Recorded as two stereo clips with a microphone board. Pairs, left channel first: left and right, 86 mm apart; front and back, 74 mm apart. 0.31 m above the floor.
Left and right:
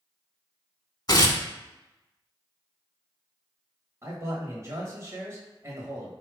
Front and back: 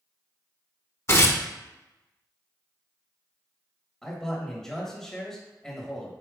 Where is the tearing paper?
50° left, 0.6 m.